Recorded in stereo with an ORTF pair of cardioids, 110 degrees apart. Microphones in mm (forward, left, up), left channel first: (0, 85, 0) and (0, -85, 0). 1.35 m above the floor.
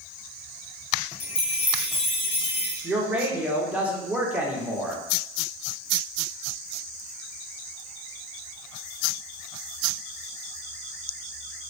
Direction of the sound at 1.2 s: 35° left.